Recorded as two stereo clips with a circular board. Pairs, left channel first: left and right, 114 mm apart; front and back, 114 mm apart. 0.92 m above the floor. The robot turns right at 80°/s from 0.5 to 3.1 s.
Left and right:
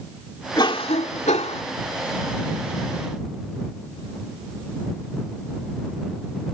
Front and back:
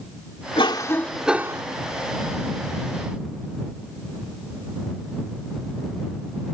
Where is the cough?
40° left; by 1.6 s 125° left.